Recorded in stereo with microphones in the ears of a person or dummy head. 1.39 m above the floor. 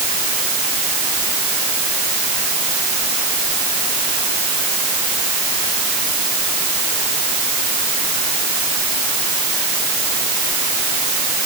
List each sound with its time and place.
Only background noise.